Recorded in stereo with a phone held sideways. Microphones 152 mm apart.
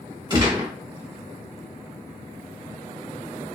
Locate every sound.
0.3 s a gunshot: 30° right (ahead or behind), 1.7 m